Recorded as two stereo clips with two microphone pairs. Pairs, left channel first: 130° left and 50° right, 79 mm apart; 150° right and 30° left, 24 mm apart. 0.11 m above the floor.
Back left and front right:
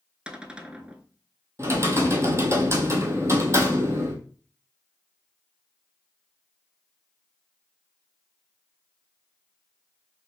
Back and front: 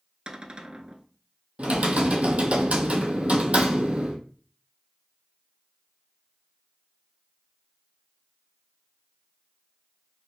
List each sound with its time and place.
0.3 s a cupboard door: 25° left, 0.5 m
1.6 s typing on a keyboard: 5° left, 0.9 m